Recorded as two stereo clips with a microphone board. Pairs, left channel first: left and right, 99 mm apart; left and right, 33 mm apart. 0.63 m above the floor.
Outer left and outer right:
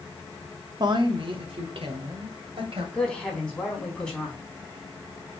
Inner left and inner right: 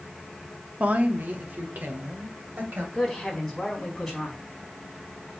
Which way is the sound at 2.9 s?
10° left (ahead or behind).